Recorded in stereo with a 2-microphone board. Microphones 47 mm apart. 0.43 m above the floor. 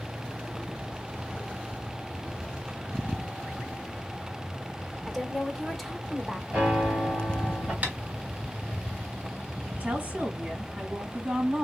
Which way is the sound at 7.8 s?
35° right (ahead or behind).